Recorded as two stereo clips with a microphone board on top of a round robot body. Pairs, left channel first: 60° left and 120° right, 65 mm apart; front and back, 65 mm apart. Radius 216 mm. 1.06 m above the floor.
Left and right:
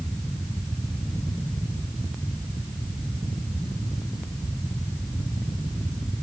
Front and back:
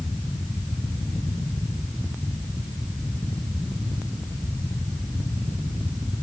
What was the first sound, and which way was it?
Only background noise.